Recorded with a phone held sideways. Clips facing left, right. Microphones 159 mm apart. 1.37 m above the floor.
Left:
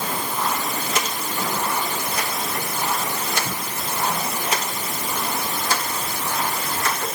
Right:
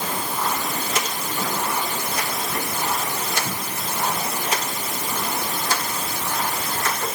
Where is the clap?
No clap in this recording.